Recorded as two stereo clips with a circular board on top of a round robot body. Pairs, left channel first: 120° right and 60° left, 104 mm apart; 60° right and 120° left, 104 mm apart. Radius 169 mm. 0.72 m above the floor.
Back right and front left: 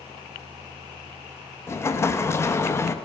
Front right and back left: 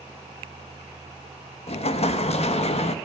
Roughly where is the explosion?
Ahead right.